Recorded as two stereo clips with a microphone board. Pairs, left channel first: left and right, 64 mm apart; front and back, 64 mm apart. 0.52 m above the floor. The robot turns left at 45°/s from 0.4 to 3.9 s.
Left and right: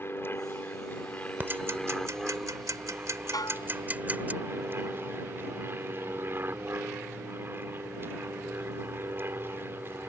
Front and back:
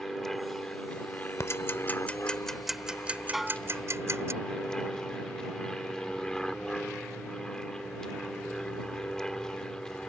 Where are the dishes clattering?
95° left; by 3.7 s 80° left.